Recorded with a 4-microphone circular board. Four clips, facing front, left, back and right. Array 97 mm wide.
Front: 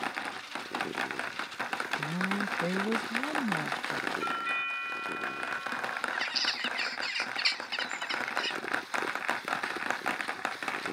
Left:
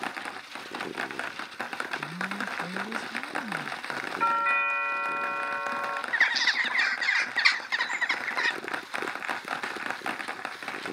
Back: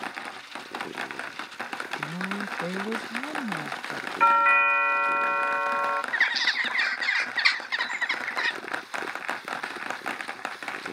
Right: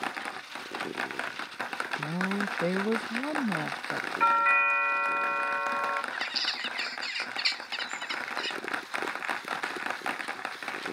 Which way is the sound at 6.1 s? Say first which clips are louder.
Left 8 dB, back 8 dB; 125° left.